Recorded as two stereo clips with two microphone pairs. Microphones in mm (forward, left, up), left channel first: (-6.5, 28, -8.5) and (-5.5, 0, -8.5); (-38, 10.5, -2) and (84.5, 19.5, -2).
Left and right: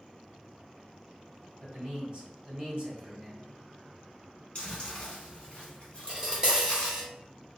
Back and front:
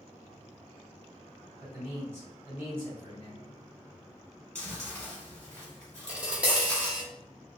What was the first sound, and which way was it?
A man speaking, 60° right.